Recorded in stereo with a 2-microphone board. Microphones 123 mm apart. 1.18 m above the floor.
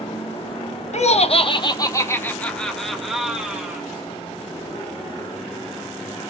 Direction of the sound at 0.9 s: 65° left (ahead or behind).